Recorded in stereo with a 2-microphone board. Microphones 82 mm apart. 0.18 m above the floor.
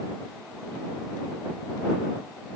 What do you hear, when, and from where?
Only background noise.